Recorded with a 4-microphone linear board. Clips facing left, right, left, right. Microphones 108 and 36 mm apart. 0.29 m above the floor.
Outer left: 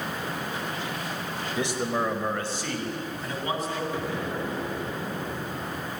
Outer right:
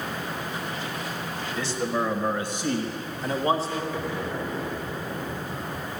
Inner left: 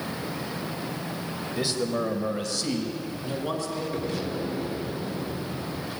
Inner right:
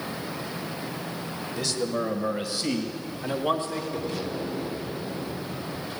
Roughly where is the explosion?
Centre.